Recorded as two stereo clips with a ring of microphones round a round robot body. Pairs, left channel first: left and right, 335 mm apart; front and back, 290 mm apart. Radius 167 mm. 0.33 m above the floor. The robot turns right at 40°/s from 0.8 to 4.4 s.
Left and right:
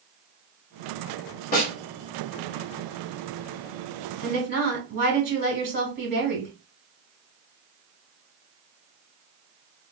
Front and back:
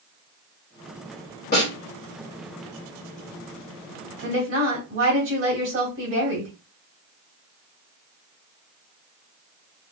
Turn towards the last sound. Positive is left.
turn(degrees=-140)